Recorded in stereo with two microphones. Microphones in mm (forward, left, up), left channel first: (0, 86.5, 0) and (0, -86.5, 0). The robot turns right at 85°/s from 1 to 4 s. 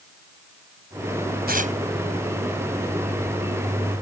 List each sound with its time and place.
1.5 s tearing paper: 65° right (ahead or behind); by 1.8 s 40° right (ahead or behind)